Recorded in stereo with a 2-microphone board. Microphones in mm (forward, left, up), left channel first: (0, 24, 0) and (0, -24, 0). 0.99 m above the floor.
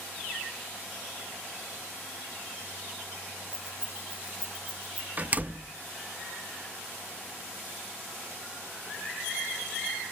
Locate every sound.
3.5 s keys jangling: 10° right (ahead or behind), 6.5 m; by 5.1 s 30° right (ahead or behind), 7 m
5.2 s a door slam: 35° right (ahead or behind), 0.5 m